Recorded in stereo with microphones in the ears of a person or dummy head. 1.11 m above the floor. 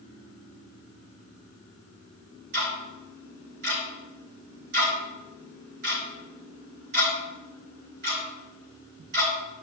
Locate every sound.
2.5 s ticking: 65° right (ahead or behind), 4.5 m